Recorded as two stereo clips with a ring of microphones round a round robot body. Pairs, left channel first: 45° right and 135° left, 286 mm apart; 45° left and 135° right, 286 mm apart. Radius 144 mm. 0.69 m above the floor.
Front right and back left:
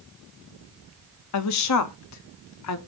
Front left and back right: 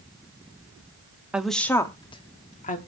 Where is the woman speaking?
50° right, 0.9 m; by 2.8 s 15° right, 1.4 m.